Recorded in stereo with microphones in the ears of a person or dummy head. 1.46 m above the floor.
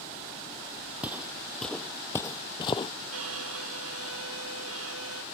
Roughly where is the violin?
Right.